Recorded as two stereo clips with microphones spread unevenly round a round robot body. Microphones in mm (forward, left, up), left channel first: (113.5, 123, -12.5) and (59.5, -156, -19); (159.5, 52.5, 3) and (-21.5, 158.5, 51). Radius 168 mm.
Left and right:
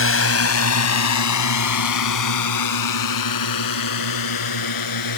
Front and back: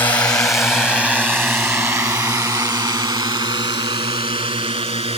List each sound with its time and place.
0.0 s a drone: 45° left; by 5.2 s 85° left